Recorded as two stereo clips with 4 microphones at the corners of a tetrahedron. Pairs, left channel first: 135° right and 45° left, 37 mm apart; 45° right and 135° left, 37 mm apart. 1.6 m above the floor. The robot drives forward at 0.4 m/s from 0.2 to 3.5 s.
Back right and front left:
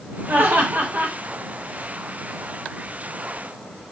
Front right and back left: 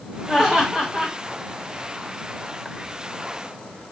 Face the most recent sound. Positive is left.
turn(degrees=120)